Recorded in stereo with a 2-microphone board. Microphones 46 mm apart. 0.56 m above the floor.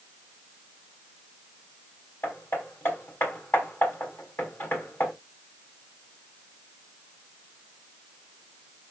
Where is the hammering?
55° left (ahead or behind), 3 m.